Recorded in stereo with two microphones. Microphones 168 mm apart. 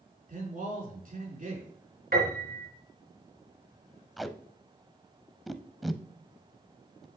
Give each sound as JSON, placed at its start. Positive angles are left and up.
{"t": 0.3, "sound": "a man speaking", "side_deg": -50, "distance_m": 4.0}
{"t": 2.1, "sound": "a piano", "side_deg": -65, "distance_m": 3.5}
{"t": 4.2, "sound": "tape being pulled", "side_deg": 0, "distance_m": 0.5}